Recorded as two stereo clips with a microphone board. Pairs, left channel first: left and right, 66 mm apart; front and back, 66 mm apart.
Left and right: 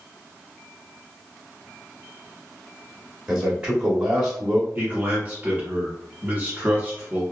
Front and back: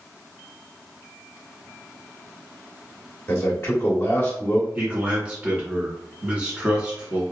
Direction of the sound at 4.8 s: 125° right.